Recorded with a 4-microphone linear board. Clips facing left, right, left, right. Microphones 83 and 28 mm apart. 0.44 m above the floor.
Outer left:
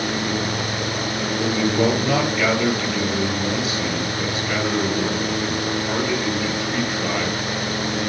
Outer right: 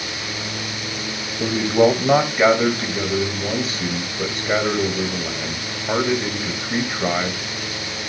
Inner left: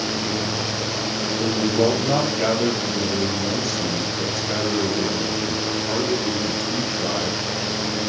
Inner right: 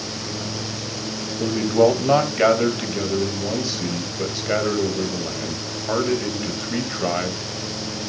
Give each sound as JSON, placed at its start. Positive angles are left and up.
{"t": 1.4, "sound": "a man speaking", "side_deg": -35, "distance_m": 2.5}